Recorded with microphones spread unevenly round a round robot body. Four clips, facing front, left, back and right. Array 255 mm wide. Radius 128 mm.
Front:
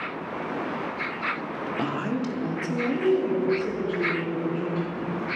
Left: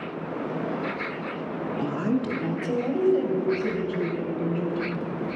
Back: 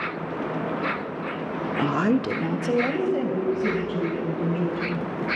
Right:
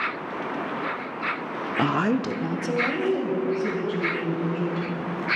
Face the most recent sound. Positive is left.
turn(degrees=-175)